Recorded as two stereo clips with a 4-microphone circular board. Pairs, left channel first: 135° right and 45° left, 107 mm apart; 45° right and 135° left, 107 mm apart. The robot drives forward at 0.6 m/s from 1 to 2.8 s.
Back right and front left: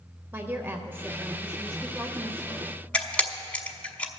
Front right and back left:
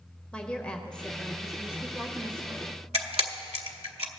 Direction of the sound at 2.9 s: 145° left.